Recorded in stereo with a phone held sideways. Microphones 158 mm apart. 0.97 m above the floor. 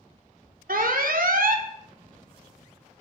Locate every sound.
0.7 s an alarm: 70° right (ahead or behind), 0.7 m